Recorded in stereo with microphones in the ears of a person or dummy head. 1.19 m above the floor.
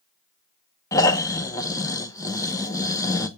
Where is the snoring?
15° left (ahead or behind), 1.1 m.